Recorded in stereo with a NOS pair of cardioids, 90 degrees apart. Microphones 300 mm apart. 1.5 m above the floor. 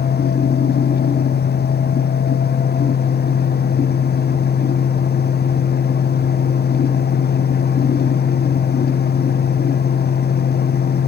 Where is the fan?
35° left, 0.7 m.